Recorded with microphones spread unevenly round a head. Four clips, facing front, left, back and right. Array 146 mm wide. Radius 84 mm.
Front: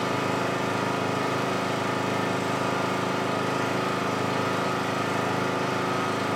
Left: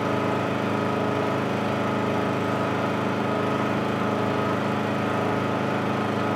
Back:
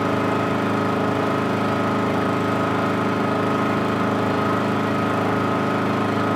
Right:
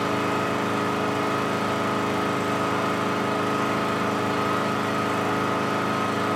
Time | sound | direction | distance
0.0 | an engine running | 175° left | 1.1 m